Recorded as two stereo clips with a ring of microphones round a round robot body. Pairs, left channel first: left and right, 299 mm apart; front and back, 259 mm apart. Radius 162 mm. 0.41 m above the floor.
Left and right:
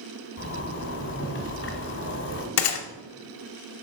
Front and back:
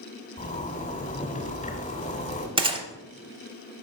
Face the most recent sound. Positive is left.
turn(degrees=105)